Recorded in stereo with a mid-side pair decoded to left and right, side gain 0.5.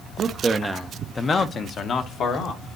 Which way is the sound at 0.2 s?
50° right.